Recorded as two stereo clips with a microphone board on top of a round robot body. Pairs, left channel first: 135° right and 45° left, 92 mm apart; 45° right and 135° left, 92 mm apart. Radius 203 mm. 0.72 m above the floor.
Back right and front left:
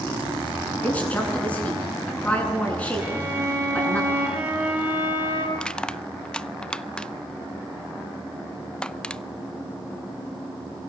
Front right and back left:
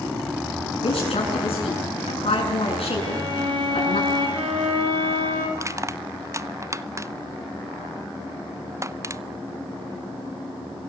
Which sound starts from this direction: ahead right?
A woman speaking, at 0.8 s.